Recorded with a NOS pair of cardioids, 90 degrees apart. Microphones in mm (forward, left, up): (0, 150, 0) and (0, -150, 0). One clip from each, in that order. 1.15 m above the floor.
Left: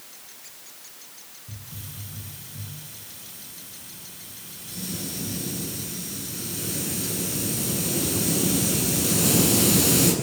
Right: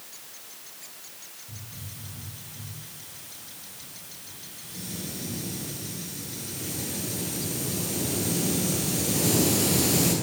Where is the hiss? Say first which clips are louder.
Left 1 dB; 60° left, 9.5 m.